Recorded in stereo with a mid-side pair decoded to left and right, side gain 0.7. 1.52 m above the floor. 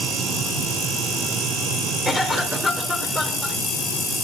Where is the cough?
5° left, 3 m.